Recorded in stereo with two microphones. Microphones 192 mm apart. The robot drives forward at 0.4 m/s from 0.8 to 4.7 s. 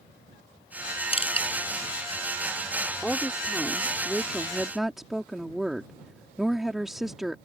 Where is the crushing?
30° left (ahead or behind).